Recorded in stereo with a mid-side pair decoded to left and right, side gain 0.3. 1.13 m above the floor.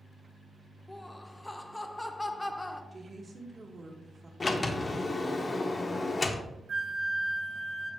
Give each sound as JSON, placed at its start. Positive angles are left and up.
{"t": 0.9, "sound": "laughter", "azimuth_deg": 15, "distance_m": 0.6}
{"t": 2.9, "sound": "a woman speaking", "azimuth_deg": -45, "distance_m": 1.0}
{"t": 4.4, "sound": "a sliding door", "azimuth_deg": 40, "distance_m": 0.6}
{"t": 6.7, "sound": "a flute", "azimuth_deg": -60, "distance_m": 1.0}